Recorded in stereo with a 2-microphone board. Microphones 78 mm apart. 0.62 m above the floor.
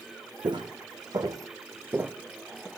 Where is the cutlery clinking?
I don't hear cutlery clinking.